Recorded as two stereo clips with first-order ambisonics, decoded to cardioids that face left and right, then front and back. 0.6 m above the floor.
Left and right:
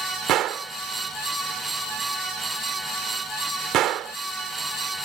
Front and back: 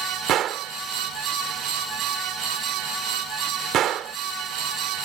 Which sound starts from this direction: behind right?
A gunshot, at 0.3 s.